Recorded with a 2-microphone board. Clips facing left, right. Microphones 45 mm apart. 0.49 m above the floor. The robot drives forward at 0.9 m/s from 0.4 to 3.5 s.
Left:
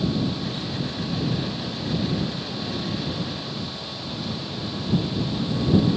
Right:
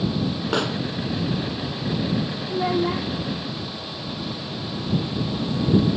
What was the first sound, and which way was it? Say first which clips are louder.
A pop: right 7 dB; 85° right.